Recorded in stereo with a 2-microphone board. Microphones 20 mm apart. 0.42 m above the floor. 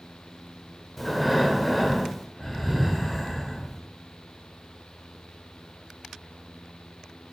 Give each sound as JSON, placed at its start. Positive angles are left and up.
{"t": 1.0, "sound": "breathing", "side_deg": 5, "distance_m": 1.2}